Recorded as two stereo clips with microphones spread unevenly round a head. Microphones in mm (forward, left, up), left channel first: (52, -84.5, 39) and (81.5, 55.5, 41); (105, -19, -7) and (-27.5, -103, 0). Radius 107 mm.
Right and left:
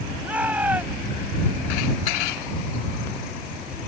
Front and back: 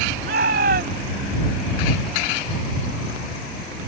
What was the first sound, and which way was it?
A shout, 160° left.